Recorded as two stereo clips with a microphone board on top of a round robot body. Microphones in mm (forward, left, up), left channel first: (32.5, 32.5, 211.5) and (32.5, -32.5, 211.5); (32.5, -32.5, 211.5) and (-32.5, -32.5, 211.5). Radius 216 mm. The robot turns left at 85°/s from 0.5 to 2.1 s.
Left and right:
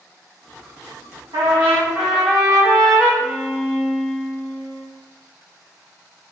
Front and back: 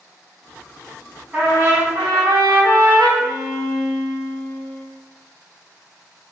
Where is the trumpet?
105° right, 1.1 m; by 3.1 s 170° right, 1.1 m.